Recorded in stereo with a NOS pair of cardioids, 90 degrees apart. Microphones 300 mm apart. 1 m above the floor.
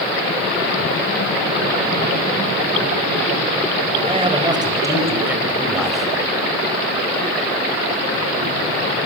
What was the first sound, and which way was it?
A man speaking, 20° right.